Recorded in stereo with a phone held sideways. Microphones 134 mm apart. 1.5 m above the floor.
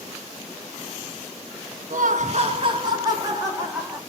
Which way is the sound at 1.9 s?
80° right.